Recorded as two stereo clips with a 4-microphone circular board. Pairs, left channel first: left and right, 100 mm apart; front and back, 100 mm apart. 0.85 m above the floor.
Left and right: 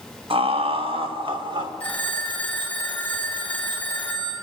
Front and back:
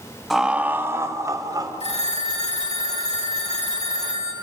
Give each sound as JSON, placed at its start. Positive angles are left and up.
{"t": 0.3, "sound": "laughter", "azimuth_deg": -90, "distance_m": 1.2}
{"t": 1.8, "sound": "a phone ringing", "azimuth_deg": 15, "distance_m": 3.5}